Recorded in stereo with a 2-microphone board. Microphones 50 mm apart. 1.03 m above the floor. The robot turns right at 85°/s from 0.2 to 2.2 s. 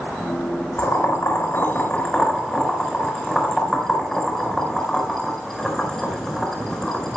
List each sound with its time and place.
0.8 s boiling: 50° left (ahead or behind), 4.5 m; by 7.2 s 10° left (ahead or behind), 4.5 m